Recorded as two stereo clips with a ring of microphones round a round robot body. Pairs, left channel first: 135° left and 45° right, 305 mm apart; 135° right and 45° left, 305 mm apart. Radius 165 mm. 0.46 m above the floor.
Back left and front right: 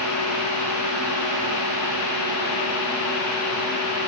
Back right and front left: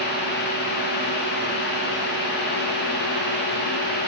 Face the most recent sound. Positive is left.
No sound to turn to.